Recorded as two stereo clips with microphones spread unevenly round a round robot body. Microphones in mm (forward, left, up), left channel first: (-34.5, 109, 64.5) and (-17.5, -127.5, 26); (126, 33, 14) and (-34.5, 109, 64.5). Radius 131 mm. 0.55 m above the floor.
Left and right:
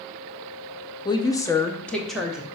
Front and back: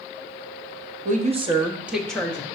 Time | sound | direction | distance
1.1 | a woman speaking | 165° left | 0.8 m